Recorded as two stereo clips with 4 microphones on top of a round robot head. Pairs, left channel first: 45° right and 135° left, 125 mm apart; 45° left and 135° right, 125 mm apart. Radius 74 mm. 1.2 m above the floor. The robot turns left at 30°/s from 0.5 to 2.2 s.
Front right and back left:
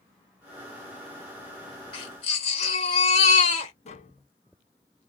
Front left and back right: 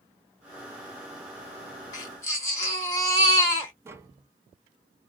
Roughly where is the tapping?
Right.